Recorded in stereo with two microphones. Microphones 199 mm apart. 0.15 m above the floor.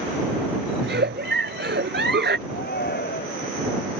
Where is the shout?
55° left (ahead or behind).